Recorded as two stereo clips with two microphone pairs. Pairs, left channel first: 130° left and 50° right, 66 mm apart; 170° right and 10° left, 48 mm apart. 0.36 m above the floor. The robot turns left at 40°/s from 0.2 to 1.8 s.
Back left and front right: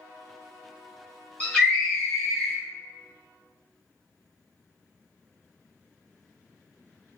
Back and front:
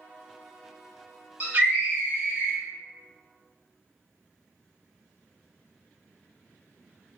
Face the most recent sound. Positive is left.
turn(degrees=45)